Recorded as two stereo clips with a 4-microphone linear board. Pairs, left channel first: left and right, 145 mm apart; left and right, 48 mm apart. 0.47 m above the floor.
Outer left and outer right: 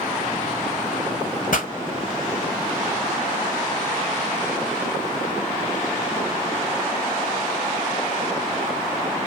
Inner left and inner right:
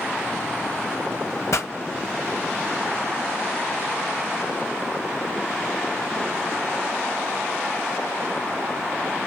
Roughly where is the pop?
Left.